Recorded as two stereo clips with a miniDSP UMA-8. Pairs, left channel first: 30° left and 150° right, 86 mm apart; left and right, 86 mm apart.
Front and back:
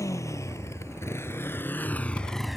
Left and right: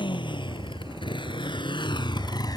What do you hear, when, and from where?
0.0 s a motorcycle: 80° left; by 2.6 s 125° left